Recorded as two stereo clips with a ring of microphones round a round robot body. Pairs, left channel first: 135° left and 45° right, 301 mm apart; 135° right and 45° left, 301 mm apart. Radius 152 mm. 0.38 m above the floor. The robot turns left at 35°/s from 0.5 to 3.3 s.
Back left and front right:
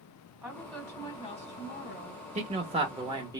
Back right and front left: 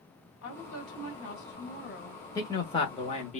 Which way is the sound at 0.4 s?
135° right.